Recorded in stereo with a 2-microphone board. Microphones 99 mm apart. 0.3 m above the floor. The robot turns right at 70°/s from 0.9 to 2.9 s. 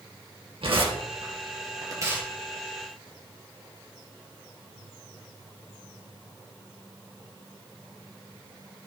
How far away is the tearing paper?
About 3.5 m.